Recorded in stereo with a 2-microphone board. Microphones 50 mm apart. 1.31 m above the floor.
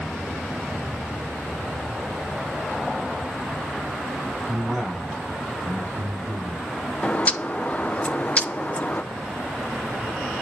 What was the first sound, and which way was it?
A man speaking, 10° right (ahead or behind).